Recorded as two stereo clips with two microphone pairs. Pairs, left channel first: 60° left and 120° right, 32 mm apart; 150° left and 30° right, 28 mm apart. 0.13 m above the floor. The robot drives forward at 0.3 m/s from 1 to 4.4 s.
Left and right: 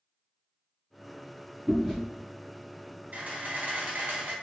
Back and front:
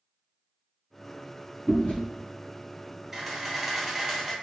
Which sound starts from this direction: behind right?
A camera shutter, at 3.1 s.